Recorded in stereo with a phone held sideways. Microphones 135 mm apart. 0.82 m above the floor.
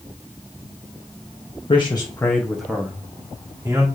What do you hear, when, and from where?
1.7 s a man speaking: 40° left (ahead or behind), 1.2 m; by 3.9 s 25° right (ahead or behind), 2.5 m